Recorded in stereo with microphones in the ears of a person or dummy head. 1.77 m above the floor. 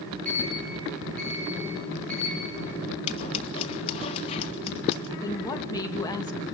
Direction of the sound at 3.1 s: 30° left (ahead or behind).